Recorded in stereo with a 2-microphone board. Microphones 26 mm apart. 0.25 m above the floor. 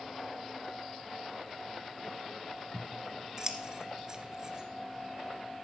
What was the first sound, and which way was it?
Scissors, 30° right (ahead or behind).